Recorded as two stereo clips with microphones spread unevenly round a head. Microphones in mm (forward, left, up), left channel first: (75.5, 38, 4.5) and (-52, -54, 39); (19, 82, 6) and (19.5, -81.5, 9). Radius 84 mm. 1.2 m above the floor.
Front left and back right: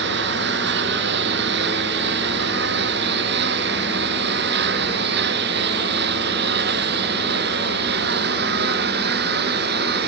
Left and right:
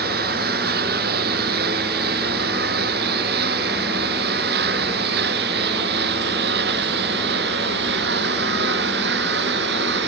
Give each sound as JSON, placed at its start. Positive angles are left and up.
{"t": 0.0, "sound": "a lawn mower", "azimuth_deg": -130}